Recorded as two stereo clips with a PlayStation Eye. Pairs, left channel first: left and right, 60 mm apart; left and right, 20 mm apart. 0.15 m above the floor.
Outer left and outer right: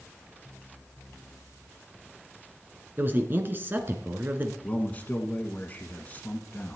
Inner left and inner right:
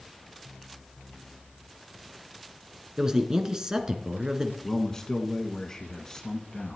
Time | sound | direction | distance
3.0 | a man speaking | 35° right (ahead or behind) | 2 m
4.6 | a man speaking | 25° left (ahead or behind) | 1.4 m